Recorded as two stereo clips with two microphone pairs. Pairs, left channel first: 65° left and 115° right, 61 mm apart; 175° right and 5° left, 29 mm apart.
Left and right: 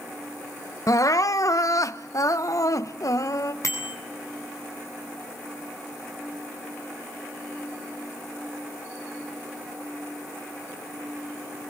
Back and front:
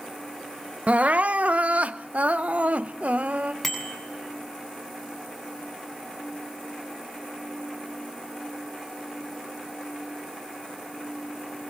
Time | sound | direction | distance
0.9 | crying | 35° left | 0.9 m
3.6 | a bicycle bell | 100° left | 8 m